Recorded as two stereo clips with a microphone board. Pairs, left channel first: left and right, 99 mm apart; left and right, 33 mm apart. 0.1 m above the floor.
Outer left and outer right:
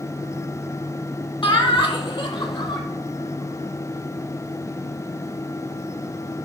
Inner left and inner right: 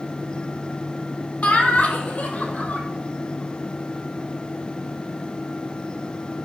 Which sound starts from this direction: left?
Laughter, at 1.4 s.